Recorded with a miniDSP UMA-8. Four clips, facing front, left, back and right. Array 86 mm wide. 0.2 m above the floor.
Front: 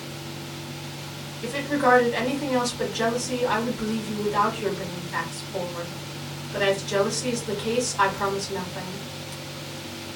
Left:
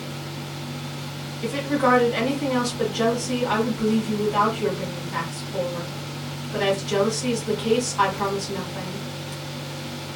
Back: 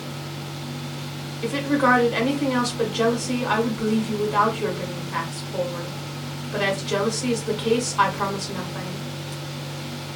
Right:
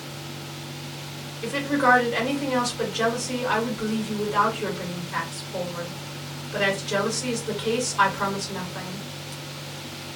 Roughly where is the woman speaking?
Behind.